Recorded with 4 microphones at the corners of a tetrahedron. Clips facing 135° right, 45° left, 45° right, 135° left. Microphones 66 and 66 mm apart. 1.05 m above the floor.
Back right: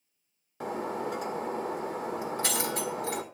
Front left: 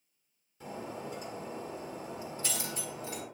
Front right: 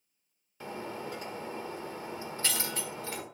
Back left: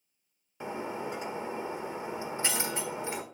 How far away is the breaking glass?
About 1.6 m.